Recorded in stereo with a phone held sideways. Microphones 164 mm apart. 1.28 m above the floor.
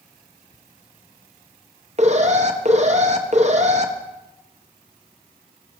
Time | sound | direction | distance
2.0 | an alarm | 45° right (ahead or behind) | 1.0 m